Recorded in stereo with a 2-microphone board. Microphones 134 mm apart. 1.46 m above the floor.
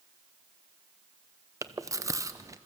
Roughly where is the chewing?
Right.